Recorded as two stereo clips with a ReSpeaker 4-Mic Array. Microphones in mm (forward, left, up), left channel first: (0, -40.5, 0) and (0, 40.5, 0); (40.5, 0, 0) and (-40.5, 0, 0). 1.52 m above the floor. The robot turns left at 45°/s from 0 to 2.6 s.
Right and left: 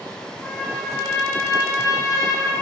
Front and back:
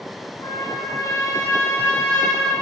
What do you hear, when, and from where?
0.4 s a trumpet: 5° right, 0.8 m; by 2.5 s 100° right, 0.8 m